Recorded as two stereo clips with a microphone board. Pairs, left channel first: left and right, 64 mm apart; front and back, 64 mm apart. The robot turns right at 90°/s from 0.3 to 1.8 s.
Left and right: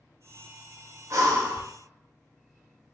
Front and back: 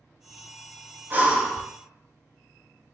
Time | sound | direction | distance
1.1 | breathing | 125° right | 0.7 m